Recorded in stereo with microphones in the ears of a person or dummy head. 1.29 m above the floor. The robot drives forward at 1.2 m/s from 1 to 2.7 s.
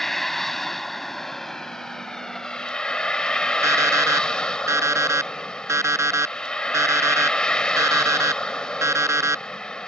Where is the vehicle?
5° left (ahead or behind).